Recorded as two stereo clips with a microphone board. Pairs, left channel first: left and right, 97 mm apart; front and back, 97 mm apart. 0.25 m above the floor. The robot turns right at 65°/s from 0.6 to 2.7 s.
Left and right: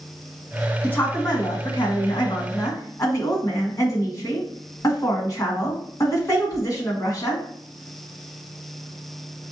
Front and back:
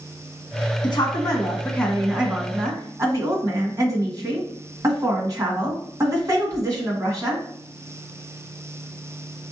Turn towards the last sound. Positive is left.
turn(degrees=135)